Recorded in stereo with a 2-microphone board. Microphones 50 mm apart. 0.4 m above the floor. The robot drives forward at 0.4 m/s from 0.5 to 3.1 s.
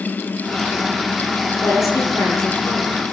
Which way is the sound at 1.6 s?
70° left (ahead or behind).